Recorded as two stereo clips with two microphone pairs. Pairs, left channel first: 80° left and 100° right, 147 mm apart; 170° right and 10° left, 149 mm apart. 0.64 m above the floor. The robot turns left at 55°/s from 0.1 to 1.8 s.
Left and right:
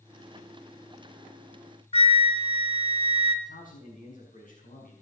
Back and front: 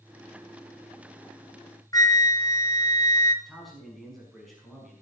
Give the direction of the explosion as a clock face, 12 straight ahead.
No explosion in this recording.